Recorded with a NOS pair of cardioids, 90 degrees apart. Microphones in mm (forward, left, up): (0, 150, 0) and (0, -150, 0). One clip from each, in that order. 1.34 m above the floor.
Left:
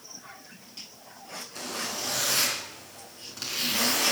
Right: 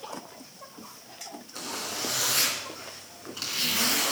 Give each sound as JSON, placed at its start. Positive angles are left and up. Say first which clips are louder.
{"t": 1.6, "sound": "a zipper", "louder": "even", "azimuth_deg": -10, "distance_m": 4.0}